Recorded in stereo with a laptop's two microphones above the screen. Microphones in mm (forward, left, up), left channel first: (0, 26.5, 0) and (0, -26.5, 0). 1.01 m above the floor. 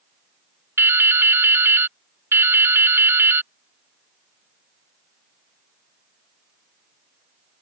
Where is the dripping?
55° right (ahead or behind).